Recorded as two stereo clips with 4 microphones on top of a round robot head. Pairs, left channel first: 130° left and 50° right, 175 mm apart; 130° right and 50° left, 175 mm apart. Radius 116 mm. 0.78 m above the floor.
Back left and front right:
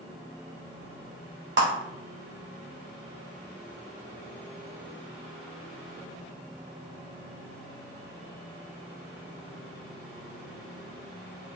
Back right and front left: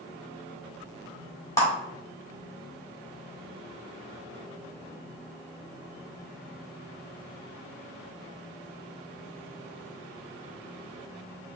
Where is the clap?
55° right, 2.5 m.